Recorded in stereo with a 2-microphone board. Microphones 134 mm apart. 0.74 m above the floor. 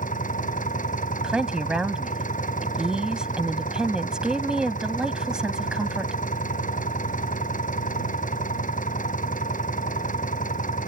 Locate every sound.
0.0 s an engine running: 65° left (ahead or behind)
1.2 s a woman speaking: 5° right (ahead or behind)